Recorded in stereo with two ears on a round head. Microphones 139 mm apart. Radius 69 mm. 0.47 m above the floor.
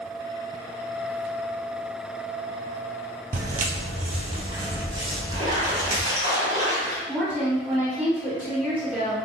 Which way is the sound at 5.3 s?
40° right (ahead or behind).